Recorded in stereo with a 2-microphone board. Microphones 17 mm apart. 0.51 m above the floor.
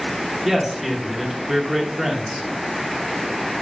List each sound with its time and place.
0.5 s a man speaking: 5° right (ahead or behind), 1.1 m